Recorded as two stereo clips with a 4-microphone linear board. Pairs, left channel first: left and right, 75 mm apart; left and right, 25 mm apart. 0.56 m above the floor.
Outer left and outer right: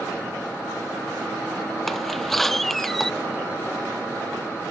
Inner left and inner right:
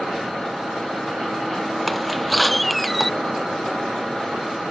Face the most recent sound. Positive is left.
turn(degrees=5)  # may be behind; listen again after turning